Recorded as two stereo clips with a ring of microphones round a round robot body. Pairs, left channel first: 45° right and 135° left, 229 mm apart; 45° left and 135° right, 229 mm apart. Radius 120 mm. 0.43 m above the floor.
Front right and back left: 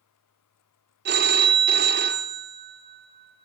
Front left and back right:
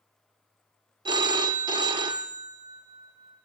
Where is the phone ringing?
160° left, 0.5 m.